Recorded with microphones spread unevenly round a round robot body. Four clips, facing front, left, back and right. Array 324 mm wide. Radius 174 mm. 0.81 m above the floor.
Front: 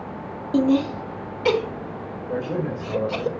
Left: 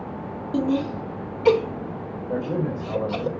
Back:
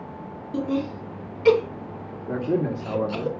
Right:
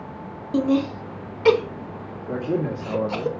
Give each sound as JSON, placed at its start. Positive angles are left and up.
{"t": 0.5, "sound": "laughter", "azimuth_deg": -55, "distance_m": 3.0}
{"t": 2.3, "sound": "a man speaking", "azimuth_deg": -145, "distance_m": 1.7}